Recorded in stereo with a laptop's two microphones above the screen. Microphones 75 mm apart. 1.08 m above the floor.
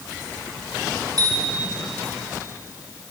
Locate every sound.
1.2 s a bicycle bell: 55° right (ahead or behind), 7.5 m